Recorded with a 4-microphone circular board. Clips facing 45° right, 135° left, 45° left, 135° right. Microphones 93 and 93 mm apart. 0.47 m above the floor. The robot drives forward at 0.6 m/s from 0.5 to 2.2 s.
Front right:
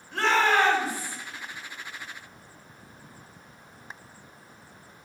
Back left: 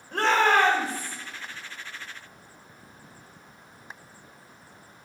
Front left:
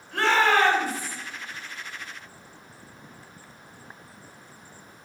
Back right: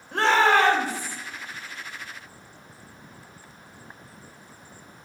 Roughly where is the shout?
Behind.